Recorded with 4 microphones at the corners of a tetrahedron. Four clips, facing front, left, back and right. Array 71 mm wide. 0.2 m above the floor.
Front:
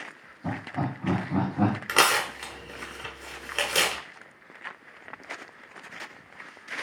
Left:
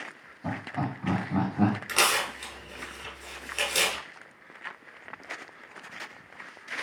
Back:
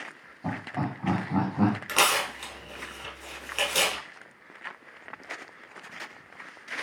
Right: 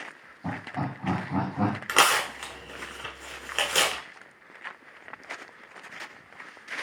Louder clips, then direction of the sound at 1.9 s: Right 4 dB, front 2 dB; 55° right.